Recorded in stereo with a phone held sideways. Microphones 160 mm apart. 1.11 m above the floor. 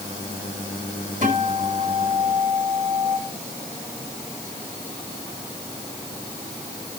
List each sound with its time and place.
1.2 s a guitar: 55° right (ahead or behind), 4.5 m